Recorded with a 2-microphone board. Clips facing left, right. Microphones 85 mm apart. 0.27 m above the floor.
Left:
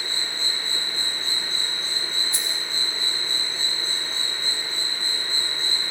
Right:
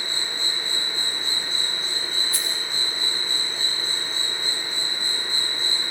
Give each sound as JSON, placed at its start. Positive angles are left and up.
{"t": 0.0, "sound": "an insect", "side_deg": 30, "distance_m": 8.0}
{"t": 2.3, "sound": "keys jangling", "side_deg": 25, "distance_m": 6.5}